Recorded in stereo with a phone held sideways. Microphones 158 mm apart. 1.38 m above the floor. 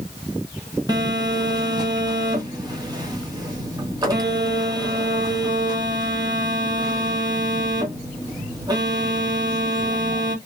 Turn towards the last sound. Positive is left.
turn(degrees=-25)  # may be behind; listen again after turning